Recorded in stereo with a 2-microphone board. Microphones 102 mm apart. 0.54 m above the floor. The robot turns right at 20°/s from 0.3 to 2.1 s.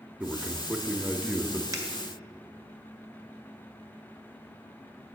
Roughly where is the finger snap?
Right.